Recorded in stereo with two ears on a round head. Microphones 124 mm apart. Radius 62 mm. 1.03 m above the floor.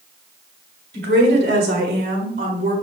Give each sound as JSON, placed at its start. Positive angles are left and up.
{"t": 0.9, "sound": "a woman speaking", "side_deg": -80, "distance_m": 3.0}